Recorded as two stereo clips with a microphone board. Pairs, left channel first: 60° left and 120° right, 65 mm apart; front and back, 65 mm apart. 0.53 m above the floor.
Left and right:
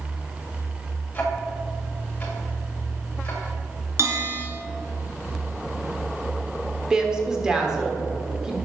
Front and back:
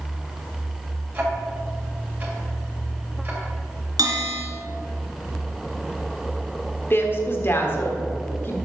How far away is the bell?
About 2 m.